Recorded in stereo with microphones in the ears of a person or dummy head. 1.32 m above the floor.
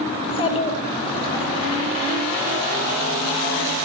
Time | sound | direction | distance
0.2 | a child speaking | 30° left (ahead or behind) | 1.0 m